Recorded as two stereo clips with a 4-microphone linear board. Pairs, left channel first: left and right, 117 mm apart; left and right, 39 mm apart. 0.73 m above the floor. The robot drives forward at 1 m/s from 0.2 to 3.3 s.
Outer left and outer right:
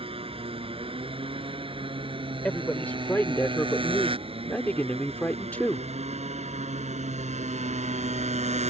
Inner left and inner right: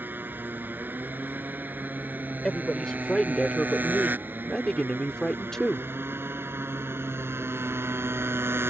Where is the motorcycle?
55° right (ahead or behind); by 8.7 s 75° right (ahead or behind).